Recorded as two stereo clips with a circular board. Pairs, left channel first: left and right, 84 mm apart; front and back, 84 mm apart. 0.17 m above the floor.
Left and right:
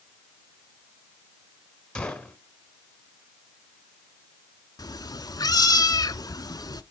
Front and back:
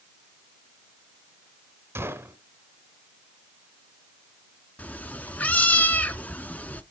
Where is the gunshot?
160° left, 1.4 m.